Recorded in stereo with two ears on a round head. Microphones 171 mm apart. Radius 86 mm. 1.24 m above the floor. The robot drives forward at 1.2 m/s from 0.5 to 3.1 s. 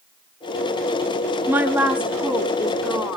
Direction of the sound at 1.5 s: 10° right (ahead or behind).